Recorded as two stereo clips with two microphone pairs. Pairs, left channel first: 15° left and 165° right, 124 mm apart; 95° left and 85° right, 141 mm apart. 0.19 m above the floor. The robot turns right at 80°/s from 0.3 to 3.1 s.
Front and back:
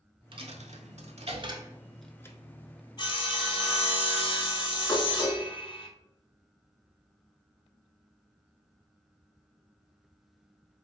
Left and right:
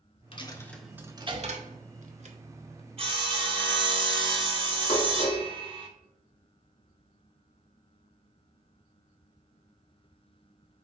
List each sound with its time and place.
0.3 s a dropped coin: 150° left, 0.6 m; by 2.4 s 50° right, 0.6 m
3.0 s sawing: 40° right, 0.7 m; by 5.9 s 30° right, 0.7 m
4.9 s dishes clattering: 80° left, 1.6 m